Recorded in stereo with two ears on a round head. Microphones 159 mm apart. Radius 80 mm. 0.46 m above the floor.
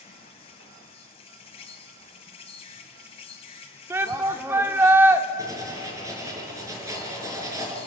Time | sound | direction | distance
0.0 | an insect | 35° left (ahead or behind) | 2 m
3.9 | a shout | 15° right (ahead or behind) | 1.3 m
5.4 | writing | 20° right (ahead or behind) | 5.5 m